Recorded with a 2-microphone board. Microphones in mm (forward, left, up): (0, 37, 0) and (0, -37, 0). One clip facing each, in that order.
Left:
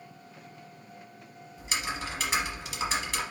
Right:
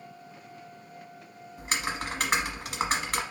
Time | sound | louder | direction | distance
1.6 | typing on a keyboard | right 2 dB | 50° right (ahead or behind) | 1.0 m